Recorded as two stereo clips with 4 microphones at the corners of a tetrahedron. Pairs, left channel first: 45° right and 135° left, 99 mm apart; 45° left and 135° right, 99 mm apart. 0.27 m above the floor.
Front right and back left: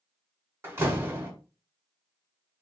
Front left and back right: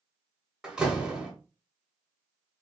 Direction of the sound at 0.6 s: 150° left.